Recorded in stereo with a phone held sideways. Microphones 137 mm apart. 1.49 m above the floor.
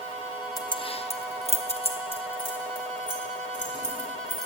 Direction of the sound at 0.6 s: 25° left (ahead or behind).